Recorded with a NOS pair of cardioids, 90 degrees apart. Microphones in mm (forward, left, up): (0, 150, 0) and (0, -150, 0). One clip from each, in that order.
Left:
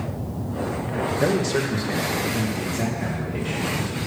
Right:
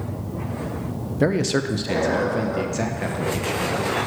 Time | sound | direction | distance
1.2 | a man speaking | 20° right | 0.7 m